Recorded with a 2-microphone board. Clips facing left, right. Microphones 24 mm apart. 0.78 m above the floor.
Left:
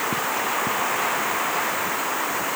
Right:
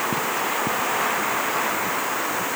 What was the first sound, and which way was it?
Only background noise.